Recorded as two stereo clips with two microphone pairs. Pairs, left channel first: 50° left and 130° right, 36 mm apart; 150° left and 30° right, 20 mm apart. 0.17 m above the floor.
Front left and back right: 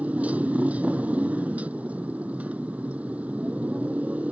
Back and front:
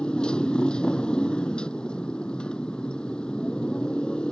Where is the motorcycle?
175° right.